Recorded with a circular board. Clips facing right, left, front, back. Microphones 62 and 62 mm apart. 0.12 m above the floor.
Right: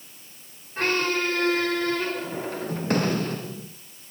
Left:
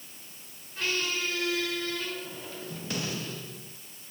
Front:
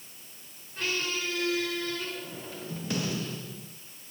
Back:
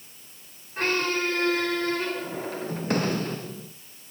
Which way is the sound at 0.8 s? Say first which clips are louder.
Right 7 dB, back 7 dB; 135° right.